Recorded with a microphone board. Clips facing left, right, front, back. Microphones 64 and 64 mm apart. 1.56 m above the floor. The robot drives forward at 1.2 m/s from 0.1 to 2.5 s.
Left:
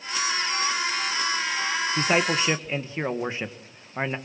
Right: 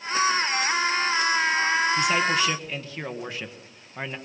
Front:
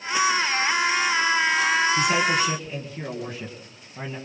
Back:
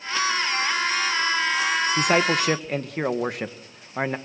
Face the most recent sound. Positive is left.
turn(degrees=155)